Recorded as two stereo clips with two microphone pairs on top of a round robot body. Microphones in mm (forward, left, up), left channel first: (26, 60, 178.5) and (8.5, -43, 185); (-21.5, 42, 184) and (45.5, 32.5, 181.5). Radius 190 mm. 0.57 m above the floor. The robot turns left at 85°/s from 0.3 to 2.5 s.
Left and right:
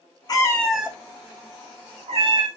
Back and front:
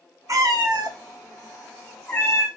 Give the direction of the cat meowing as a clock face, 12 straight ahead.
11 o'clock.